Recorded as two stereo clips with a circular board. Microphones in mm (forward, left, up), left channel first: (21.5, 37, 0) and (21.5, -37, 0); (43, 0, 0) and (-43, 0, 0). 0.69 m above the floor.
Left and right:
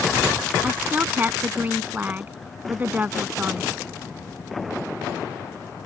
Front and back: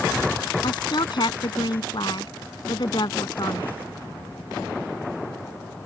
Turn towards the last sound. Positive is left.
turn(degrees=-25)